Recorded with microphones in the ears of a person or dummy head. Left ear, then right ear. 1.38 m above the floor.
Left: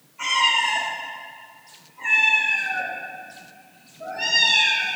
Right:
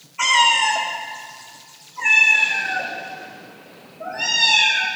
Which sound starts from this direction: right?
A cat meowing, at 0.2 s.